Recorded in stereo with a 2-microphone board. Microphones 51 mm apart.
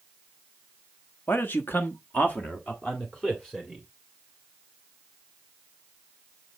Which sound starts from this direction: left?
A man speaking, at 1.3 s.